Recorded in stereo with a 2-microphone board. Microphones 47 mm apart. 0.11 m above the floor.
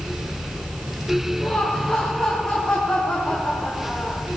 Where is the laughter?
15° left (ahead or behind), 4 m.